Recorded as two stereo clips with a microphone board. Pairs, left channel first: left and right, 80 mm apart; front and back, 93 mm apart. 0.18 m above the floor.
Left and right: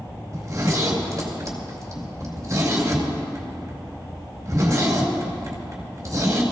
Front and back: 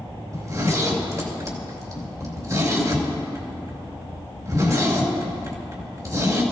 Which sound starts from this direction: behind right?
A zipper, at 0.3 s.